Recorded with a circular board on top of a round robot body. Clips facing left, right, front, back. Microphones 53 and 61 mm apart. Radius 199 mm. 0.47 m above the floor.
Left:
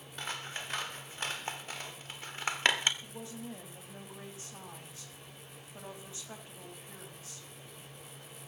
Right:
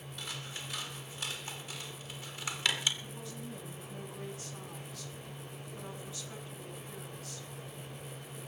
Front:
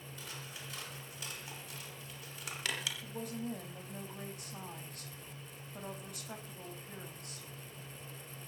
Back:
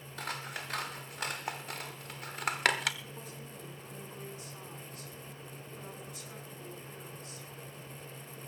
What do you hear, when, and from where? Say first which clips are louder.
0.2 s scissors: left 4 dB, back 11 dB; 145° left, 0.9 m
3.0 s a woman speaking: even, front 6 dB; 30° left, 5 m